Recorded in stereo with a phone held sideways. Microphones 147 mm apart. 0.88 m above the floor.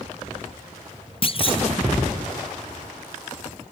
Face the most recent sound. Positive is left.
turn(degrees=40)  # may be behind; listen again after turning